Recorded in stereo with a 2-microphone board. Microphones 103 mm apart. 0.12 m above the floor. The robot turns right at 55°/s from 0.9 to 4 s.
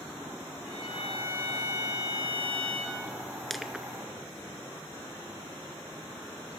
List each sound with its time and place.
0.7 s a violin: 70° left, 6 m; by 3.0 s 175° right, 6 m
3.5 s crushing: centre (ahead or behind), 0.7 m; by 3.9 s 10° right (ahead or behind), 0.7 m